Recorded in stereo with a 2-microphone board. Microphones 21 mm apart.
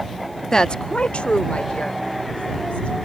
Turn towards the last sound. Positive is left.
turn(degrees=75)  # may be behind; listen again after turning